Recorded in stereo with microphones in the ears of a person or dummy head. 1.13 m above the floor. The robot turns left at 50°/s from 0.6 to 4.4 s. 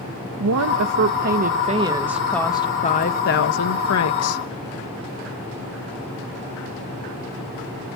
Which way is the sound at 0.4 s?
100° right.